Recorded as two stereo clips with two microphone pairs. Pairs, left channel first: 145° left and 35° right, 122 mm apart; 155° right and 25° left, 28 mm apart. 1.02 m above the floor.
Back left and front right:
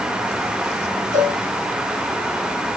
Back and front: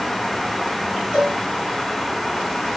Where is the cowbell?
35° right, 9 m.